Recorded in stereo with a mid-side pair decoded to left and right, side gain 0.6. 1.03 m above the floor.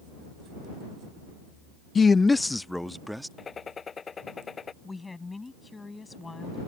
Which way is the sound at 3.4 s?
30° left.